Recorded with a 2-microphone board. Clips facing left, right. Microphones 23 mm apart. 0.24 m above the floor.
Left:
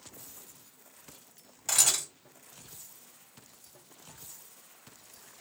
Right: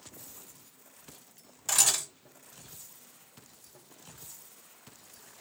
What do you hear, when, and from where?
1.7 s a camera shutter: 10° left (ahead or behind), 1.8 m